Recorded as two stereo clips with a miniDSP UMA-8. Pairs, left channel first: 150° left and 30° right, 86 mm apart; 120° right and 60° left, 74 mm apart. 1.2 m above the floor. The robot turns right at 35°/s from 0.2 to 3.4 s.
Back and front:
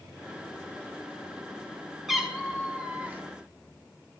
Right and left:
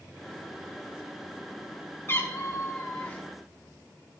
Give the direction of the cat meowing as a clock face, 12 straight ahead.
4 o'clock.